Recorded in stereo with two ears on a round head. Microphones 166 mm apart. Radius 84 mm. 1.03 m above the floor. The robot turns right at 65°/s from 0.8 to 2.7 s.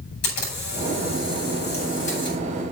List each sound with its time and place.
0.2 s a camera shutter: 60° left, 6.5 m; by 2.4 s 160° left, 6.5 m